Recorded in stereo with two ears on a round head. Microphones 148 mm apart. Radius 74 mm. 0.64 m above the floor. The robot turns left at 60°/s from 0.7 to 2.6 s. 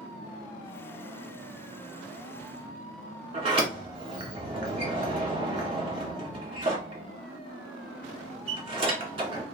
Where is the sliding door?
35° right (ahead or behind), 1.8 m.